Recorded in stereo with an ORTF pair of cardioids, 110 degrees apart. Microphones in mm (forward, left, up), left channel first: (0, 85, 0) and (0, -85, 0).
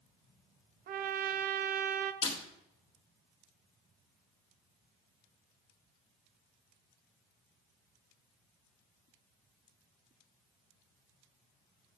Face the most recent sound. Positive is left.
turn(degrees=30)